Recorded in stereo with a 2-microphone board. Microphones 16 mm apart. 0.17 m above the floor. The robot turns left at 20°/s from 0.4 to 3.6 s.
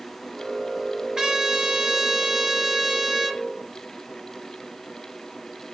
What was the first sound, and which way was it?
A trumpet, 115° right.